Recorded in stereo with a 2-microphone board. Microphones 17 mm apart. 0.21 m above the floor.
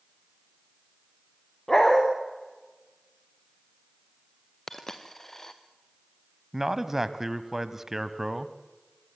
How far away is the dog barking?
About 6.5 m.